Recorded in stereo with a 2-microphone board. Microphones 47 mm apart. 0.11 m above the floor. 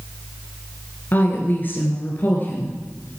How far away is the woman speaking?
About 1.5 m.